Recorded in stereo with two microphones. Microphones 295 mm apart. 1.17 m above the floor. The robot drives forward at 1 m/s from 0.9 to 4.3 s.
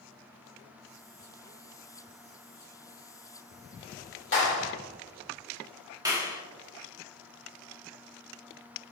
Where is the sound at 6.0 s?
10° right (ahead or behind), 1.8 m.